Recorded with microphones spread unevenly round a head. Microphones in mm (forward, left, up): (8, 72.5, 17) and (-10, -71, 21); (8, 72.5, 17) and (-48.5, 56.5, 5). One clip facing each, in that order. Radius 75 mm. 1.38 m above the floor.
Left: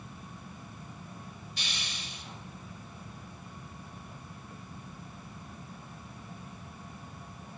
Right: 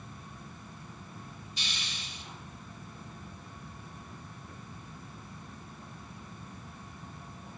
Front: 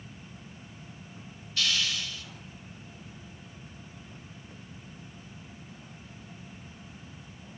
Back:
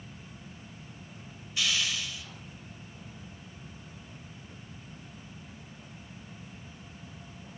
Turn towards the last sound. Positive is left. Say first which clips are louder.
# left 1 dB, front 1 dB
turn(degrees=120)